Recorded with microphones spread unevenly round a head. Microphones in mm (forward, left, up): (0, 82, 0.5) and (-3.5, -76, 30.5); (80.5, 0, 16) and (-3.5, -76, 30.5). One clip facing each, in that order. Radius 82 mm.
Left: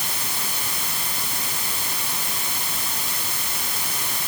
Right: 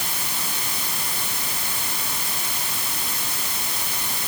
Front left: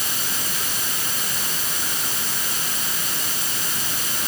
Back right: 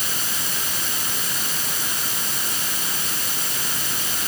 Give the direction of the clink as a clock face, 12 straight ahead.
I don't hear a clink.